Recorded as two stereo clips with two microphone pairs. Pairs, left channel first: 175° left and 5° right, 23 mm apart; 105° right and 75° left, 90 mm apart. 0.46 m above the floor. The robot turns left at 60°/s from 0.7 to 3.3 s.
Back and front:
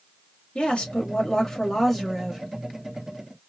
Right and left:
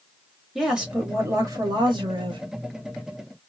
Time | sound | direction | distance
0.6 | a woman speaking | 160° left | 2.5 m